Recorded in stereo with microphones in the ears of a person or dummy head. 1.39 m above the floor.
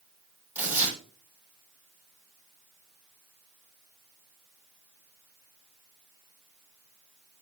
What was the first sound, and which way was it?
Tearing paper, 5° right (ahead or behind).